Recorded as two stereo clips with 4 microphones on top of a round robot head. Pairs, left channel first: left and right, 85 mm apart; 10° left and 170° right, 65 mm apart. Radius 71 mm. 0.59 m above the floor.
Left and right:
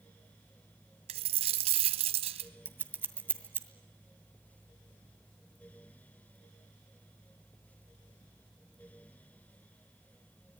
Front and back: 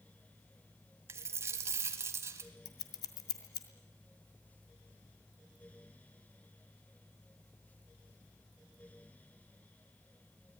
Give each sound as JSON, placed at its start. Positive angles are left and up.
{"t": 1.1, "sound": "a dropped coin", "azimuth_deg": -110, "distance_m": 1.2}
{"t": 2.6, "sound": "scissors", "azimuth_deg": -25, "distance_m": 2.0}